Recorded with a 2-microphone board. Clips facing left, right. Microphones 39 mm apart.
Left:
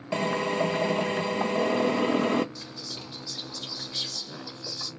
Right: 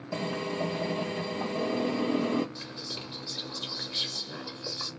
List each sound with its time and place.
0.1 s a drill: 85° left, 0.7 m
2.5 s whispering: 30° right (ahead or behind), 1.7 m